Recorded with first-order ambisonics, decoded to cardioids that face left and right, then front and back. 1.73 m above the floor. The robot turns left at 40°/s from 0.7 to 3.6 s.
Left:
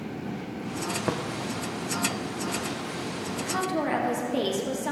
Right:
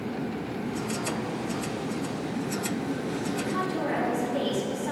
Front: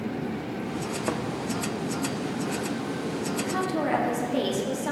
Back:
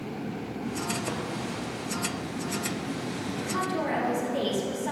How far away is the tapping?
About 0.7 m.